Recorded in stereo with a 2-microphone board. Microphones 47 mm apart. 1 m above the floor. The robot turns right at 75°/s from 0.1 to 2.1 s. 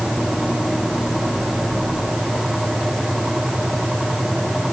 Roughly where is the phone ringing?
I don't hear a phone ringing.